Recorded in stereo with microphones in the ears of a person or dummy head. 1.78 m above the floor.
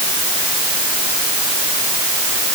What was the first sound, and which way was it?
Only background noise.